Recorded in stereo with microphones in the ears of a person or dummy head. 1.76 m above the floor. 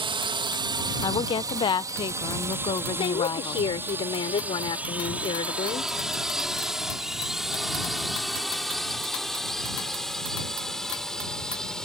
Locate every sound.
0.0 s a drone: 25° right (ahead or behind); by 11.9 s centre (ahead or behind)
1.0 s a woman speaking: 20° left (ahead or behind)
2.9 s a woman speaking: 25° left (ahead or behind)